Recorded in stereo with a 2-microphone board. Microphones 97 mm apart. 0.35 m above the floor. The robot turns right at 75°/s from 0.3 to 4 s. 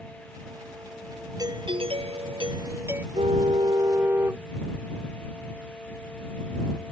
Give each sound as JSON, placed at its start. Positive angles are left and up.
{"t": 1.4, "sound": "a doorbell", "azimuth_deg": -140}
{"t": 3.1, "sound": "a car horn", "azimuth_deg": -90}